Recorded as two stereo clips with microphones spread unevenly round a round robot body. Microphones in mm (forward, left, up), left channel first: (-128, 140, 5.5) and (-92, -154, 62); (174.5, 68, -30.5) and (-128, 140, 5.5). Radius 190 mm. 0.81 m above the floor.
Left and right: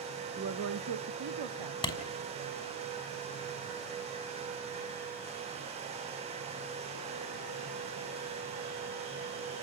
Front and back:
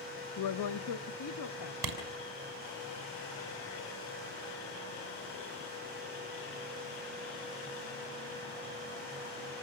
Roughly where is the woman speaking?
Ahead.